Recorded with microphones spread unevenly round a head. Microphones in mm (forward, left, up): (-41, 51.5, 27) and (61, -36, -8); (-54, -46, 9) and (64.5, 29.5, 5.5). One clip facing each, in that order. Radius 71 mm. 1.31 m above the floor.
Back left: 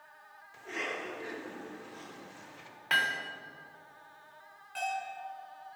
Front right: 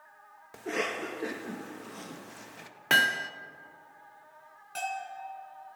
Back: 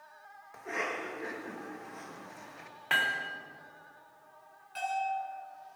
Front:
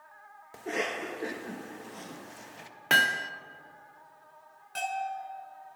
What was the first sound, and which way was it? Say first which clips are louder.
A cough: front right 6 dB, front 4 dB; 20° right.